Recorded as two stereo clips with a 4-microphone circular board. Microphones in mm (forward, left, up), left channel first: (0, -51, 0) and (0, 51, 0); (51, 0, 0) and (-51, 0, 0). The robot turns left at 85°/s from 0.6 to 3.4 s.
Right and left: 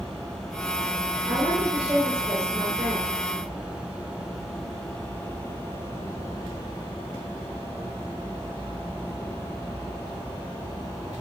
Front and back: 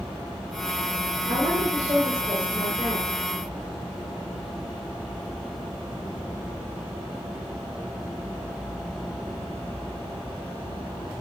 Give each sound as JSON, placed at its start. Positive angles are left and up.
{"t": 1.3, "sound": "a woman speaking", "azimuth_deg": 165, "distance_m": 5.5}